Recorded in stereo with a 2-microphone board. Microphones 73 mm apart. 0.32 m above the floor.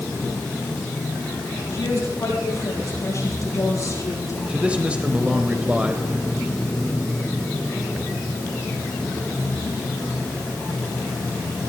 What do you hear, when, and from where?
1.7 s a woman speaking: 45° left (ahead or behind), 8.5 m; by 4.4 s 55° left (ahead or behind), 8 m
4.5 s a man speaking: 15° right (ahead or behind), 1.2 m